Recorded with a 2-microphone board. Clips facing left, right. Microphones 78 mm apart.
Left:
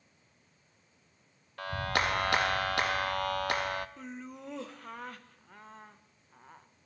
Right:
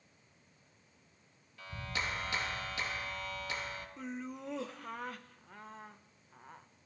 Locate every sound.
1.6 s a clap: 65° left (ahead or behind), 0.8 m
4.0 s laughter: centre (ahead or behind), 1.0 m